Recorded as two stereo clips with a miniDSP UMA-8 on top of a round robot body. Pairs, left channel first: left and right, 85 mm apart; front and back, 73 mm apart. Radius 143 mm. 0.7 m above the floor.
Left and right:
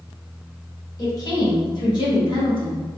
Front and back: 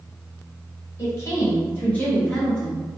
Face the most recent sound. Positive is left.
turn(degrees=80)